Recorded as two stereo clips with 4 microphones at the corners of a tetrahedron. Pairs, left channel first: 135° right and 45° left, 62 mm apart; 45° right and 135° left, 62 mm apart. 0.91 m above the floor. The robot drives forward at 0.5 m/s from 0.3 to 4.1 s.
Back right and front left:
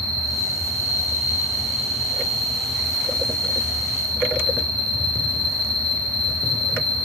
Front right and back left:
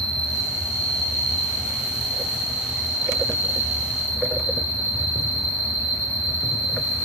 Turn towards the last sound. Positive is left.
turn(degrees=170)